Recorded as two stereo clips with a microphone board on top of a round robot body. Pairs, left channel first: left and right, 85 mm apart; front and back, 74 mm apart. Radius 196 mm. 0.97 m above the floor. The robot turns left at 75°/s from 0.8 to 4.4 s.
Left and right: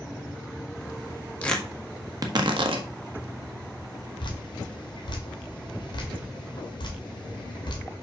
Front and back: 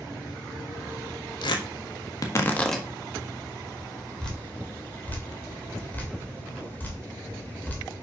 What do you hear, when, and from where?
1.4 s tearing paper: 15° left, 1.5 m; by 2.9 s 90° right, 1.5 m
4.2 s dripping: 80° left, 2.5 m; by 7.8 s 65° left, 2.5 m